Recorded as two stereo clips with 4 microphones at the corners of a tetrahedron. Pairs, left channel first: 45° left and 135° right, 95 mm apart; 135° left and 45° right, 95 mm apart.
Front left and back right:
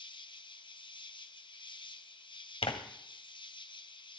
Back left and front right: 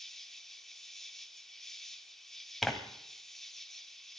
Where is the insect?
50° left, 0.9 m.